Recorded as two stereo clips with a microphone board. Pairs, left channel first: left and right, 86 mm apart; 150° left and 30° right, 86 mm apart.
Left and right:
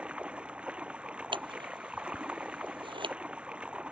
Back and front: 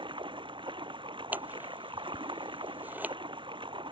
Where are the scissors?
100° right.